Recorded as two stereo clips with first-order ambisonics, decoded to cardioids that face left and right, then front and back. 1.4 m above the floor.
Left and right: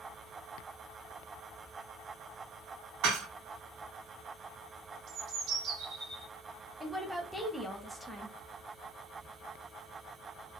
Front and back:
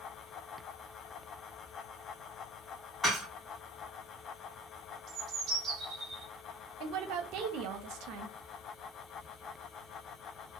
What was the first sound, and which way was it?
Dishes clattering, 75° right.